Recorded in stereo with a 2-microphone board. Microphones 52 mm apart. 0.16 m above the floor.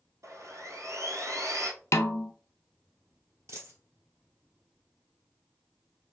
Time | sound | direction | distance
0.2 | sawing | 75° right (ahead or behind) | 1.1 m
1.9 | a snare drum | 70° left (ahead or behind) | 0.5 m
3.5 | a dropped coin | 60° right (ahead or behind) | 1.6 m